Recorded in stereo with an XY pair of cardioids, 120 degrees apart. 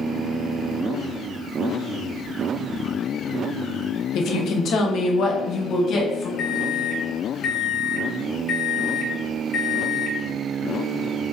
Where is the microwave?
50° left, 0.7 m.